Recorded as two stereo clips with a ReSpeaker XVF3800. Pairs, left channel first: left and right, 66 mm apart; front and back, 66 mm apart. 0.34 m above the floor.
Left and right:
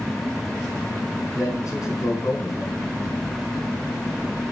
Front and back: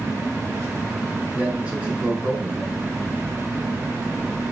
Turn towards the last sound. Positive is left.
turn(degrees=115)